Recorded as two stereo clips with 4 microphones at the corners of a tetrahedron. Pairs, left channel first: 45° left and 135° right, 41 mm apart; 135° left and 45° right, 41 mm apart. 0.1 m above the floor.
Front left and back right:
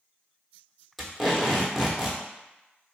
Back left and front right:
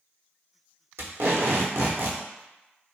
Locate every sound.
1.0 s tape being pulled: 45° right, 0.8 m